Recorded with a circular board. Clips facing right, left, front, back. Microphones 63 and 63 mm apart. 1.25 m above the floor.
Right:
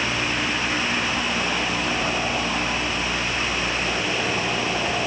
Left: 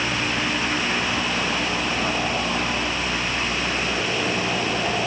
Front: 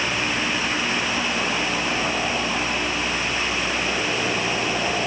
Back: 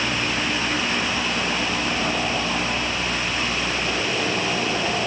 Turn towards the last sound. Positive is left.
No sound to turn to.